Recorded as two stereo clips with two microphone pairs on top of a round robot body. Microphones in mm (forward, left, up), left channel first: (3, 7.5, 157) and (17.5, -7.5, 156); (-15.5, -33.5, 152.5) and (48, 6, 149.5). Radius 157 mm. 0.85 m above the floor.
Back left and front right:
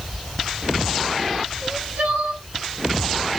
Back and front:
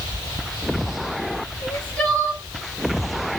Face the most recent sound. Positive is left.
turn(degrees=-80)